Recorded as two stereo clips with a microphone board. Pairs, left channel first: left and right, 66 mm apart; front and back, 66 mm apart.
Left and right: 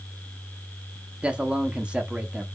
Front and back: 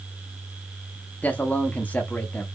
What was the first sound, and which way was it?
A man speaking, 35° right.